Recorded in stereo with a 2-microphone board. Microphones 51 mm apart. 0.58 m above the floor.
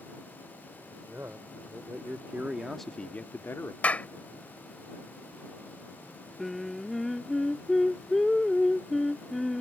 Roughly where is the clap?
Left.